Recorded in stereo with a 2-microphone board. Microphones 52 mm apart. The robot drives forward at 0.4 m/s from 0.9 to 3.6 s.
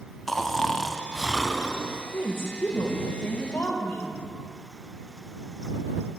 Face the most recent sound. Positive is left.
turn(degrees=35)  # may be behind; listen again after turning